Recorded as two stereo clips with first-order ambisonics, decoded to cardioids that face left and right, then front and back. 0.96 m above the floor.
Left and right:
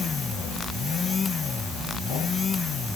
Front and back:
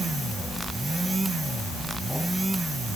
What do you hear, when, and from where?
Only background noise.